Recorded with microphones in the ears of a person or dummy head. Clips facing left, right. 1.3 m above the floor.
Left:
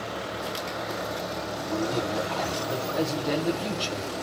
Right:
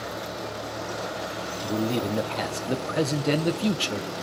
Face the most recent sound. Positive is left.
turn(degrees=-35)  # may be behind; listen again after turning